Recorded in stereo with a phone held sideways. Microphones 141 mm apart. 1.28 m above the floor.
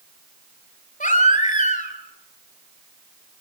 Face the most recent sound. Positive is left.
turn(degrees=60)  # may be behind; listen again after turning